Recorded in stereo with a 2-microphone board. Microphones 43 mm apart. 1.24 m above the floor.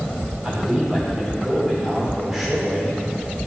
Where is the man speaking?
10° right (ahead or behind), 4 m.